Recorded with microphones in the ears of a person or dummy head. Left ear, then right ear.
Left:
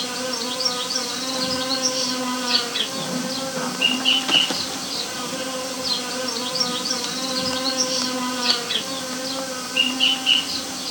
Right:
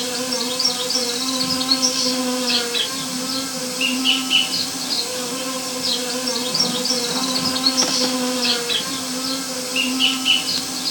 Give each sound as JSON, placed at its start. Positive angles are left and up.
{"t": 0.0, "sound": "an insect", "side_deg": -55, "distance_m": 1.9}